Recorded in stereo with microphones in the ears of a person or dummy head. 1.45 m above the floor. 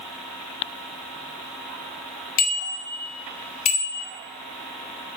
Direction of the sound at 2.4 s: 55° left (ahead or behind).